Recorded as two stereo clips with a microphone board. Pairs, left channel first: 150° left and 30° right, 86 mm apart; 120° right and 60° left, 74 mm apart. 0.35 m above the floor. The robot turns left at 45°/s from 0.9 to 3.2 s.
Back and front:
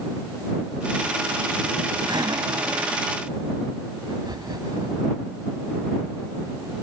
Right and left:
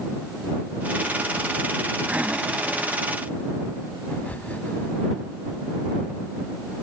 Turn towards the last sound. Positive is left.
turn(degrees=-55)